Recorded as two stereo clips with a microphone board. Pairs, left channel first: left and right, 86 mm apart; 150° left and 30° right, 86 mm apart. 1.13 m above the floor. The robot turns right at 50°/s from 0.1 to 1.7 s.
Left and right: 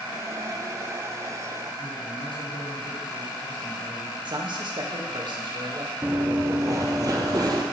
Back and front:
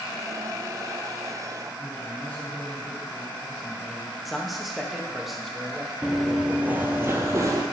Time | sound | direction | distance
1.8 | a man speaking | 80° left | 5 m
4.2 | a man speaking | 120° right | 1.5 m
6.0 | running footsteps | 125° right | 1.2 m